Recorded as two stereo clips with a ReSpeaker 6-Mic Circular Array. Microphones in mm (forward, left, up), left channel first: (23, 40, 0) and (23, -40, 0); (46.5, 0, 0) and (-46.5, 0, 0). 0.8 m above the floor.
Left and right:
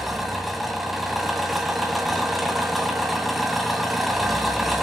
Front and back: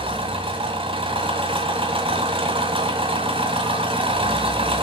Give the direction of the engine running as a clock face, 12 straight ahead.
6 o'clock.